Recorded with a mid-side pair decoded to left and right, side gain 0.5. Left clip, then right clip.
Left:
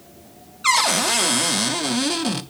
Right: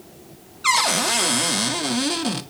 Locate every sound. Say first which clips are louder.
0.6 s a cupboard door: left 1 dB; 10° left, 0.5 m